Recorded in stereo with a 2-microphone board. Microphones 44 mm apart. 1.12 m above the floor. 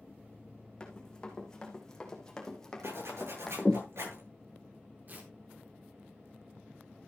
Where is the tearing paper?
45° right (ahead or behind), 4 m.